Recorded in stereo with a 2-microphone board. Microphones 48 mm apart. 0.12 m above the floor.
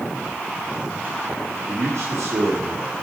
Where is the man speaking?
75° right (ahead or behind), 7 m.